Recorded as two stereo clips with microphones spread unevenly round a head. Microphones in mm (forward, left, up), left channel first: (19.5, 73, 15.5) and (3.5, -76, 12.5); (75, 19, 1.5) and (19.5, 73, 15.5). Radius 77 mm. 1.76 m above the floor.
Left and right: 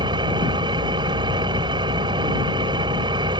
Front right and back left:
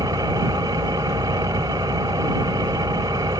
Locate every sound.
0.0 s an engine running: 160° right